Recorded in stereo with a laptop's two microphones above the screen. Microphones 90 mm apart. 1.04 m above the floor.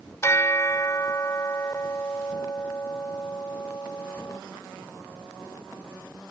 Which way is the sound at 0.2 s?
30° left (ahead or behind).